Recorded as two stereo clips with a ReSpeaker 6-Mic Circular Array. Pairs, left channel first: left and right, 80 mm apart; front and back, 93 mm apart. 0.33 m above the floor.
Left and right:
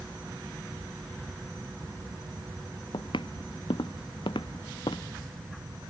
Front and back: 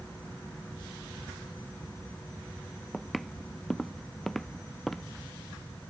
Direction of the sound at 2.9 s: 90° left.